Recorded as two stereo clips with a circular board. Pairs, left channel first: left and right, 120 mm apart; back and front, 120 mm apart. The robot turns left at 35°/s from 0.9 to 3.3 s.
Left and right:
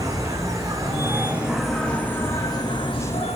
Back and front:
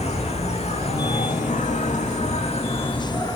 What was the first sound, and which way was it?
An insect, 155° right.